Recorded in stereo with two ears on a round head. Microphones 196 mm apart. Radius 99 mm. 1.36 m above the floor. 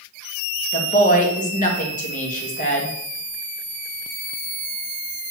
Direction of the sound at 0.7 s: 35° left (ahead or behind).